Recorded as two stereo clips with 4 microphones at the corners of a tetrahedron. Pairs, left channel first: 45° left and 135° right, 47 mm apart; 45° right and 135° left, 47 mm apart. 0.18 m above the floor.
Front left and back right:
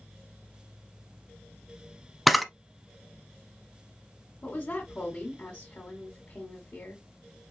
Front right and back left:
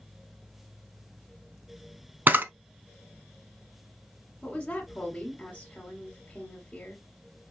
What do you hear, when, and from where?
2.3 s a camera shutter: 135° left, 0.5 m
4.4 s a woman speaking: 5° left, 1.8 m